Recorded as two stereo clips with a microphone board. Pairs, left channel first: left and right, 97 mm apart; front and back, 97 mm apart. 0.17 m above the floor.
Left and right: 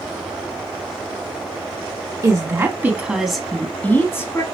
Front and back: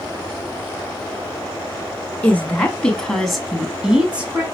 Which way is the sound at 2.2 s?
65° right.